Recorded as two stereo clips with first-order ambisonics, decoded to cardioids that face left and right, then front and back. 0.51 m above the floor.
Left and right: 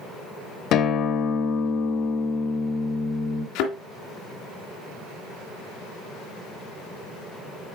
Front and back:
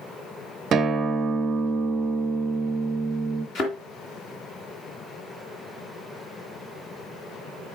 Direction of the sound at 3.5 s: 60° left.